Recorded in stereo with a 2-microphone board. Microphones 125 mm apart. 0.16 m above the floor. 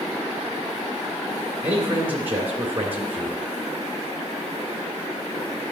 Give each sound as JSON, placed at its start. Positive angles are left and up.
{"t": 1.6, "sound": "a man speaking", "side_deg": -15, "distance_m": 2.0}